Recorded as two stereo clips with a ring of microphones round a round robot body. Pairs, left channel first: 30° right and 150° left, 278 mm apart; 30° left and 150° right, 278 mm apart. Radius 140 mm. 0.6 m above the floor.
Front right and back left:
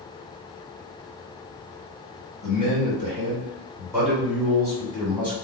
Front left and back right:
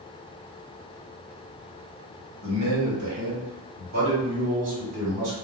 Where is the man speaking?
155° right, 1.5 m; by 5.3 s 100° right, 2.5 m.